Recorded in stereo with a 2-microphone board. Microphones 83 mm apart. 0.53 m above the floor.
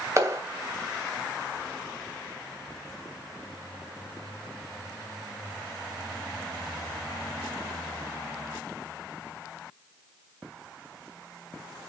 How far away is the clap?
About 2.5 m.